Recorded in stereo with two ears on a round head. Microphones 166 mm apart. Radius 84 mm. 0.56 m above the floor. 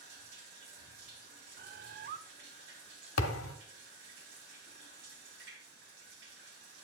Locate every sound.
0.0 s running water: 65° right (ahead or behind), 3 m
1.6 s a bird: 55° right (ahead or behind), 0.5 m
3.2 s a thud: 85° left, 1.1 m